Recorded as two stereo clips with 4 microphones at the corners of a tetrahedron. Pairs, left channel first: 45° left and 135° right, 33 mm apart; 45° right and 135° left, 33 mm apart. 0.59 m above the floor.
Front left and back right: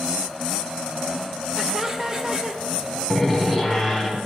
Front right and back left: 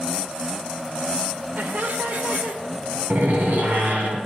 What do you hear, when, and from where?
1.6 s laughter: 155° left, 1.4 m; by 2.6 s 165° left, 1.9 m
3.1 s a door slam: 145° left, 4 m